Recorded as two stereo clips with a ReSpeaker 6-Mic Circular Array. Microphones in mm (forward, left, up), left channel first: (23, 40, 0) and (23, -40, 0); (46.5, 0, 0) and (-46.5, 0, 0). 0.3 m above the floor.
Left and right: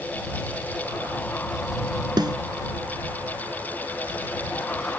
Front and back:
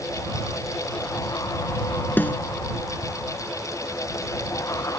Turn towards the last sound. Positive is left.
turn(degrees=-70)